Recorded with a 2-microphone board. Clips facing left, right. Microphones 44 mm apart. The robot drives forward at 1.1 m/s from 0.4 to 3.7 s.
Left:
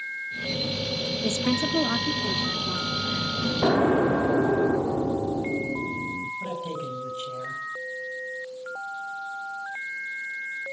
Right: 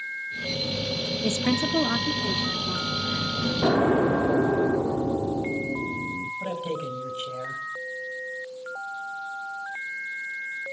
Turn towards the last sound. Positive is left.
turn(degrees=-35)  # may be behind; listen again after turning